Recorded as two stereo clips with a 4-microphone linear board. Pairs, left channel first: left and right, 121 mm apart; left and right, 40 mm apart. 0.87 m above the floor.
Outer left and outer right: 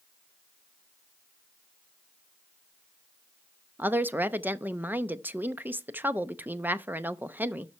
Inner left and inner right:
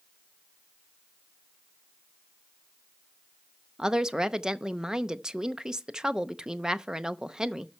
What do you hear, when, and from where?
3.8 s a woman speaking: 15° right (ahead or behind), 0.6 m